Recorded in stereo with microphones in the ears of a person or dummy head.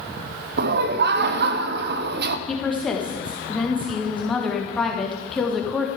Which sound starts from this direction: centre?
A woman speaking, at 2.5 s.